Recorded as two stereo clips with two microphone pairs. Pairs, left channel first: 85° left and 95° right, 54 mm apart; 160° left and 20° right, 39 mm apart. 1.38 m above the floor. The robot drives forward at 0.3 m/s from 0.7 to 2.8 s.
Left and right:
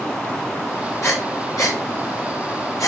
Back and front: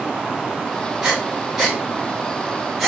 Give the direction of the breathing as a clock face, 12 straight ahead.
10 o'clock.